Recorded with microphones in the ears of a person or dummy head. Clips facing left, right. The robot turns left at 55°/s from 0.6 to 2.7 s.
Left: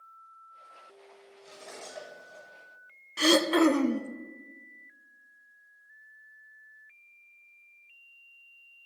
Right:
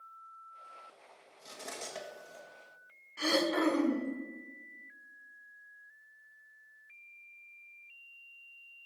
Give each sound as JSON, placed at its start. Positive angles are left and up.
{"t": 1.4, "sound": "cutlery clinking", "side_deg": -70, "distance_m": 1.9}
{"t": 3.2, "sound": "throat clearing", "side_deg": 70, "distance_m": 0.6}